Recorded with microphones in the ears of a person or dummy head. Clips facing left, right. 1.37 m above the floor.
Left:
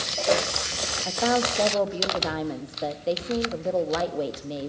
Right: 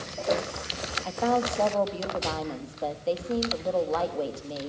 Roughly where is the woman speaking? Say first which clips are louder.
Left 1 dB; centre.